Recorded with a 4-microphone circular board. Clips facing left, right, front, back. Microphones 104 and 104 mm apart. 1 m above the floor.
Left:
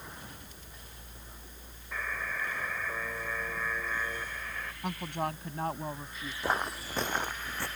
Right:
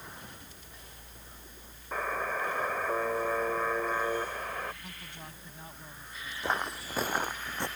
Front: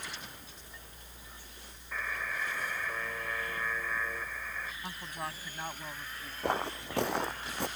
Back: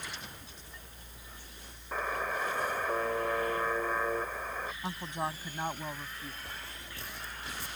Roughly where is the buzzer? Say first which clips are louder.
Right 5 dB, back 5 dB; behind right.